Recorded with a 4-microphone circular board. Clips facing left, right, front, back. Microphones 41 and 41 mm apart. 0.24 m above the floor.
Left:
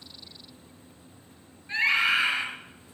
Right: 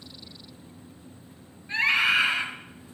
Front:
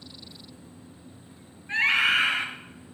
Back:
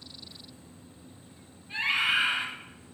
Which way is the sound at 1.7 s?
Straight ahead.